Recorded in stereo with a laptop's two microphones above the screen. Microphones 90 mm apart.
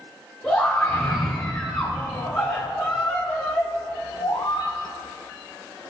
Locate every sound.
0.4 s a scream: 15° left (ahead or behind), 3 m; by 4.8 s 60° left (ahead or behind), 1.3 m